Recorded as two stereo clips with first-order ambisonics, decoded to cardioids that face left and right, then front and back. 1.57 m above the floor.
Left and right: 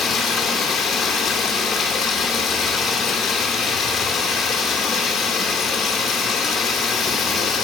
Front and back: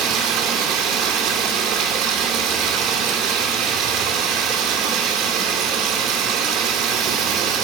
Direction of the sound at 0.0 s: 155° left.